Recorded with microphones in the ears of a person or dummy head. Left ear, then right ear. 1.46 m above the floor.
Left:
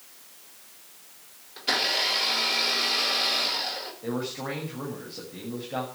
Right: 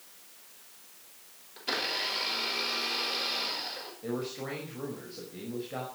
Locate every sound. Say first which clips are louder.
1.6 s a blender: left 7 dB; 10° left (ahead or behind), 5 m
4.0 s a man speaking: left 3 dB; 5° left (ahead or behind), 6 m